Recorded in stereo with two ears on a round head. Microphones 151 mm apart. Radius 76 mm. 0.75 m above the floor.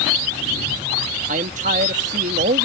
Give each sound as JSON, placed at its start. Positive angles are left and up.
{"t": 1.3, "sound": "a man speaking", "side_deg": -45}